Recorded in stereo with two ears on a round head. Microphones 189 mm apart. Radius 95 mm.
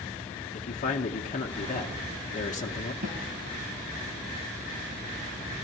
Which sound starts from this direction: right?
A snare drum, at 3.0 s.